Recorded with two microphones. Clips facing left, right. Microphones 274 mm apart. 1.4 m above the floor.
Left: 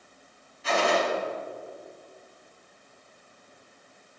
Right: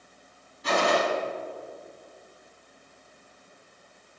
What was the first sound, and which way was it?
A gunshot, 45° right (ahead or behind).